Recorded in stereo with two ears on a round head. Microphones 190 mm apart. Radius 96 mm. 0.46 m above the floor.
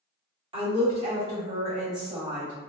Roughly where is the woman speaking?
Right.